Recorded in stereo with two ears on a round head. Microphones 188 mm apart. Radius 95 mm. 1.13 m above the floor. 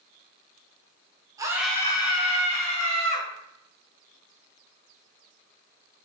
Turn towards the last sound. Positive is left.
turn(degrees=35)  # may be behind; listen again after turning